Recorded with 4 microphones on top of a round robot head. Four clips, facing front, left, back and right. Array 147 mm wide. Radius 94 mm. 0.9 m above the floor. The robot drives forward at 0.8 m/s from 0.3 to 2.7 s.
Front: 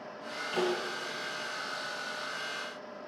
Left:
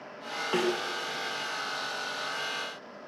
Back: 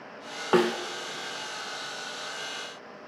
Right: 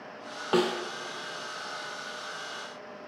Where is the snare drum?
165° right, 1.9 m.